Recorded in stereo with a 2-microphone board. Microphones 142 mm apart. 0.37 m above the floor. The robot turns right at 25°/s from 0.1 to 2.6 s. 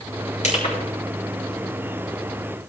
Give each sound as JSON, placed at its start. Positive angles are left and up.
{"t": 0.4, "sound": "crushing", "side_deg": 55, "distance_m": 6.0}